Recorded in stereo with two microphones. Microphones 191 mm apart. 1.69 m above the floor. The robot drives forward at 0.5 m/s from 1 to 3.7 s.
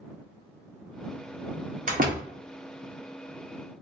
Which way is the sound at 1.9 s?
45° right (ahead or behind).